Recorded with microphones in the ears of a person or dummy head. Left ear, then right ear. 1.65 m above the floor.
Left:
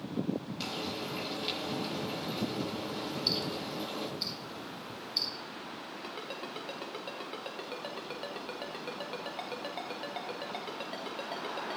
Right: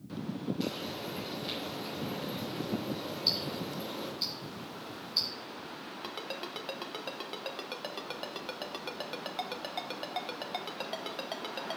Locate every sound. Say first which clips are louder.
0.6 s frying: left 1 dB; 40° left (ahead or behind), 6 m
3.3 s ticking: right 2 dB; centre (ahead or behind), 1.6 m
6.0 s a ringtone: right 2 dB; 15° right (ahead or behind), 0.9 m